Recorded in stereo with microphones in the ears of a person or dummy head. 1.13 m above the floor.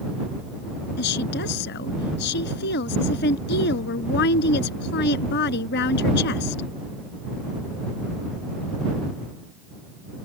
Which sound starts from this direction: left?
A woman speaking, at 1.0 s.